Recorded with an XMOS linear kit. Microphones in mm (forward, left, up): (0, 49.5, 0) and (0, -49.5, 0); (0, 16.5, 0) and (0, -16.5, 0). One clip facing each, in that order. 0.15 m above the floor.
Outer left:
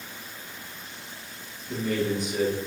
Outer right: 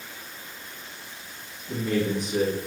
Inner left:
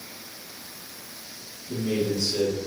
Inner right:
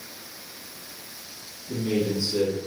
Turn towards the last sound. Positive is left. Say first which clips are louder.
# outer right 1 dB, inner right 1 dB
turn(degrees=-25)  # may be behind; listen again after turning